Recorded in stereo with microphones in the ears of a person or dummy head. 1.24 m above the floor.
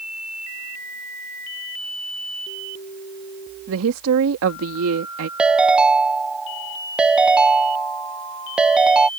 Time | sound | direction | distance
3.7 | a woman speaking | 85° right | ?
5.4 | a ringtone | 5° right (ahead or behind) | ?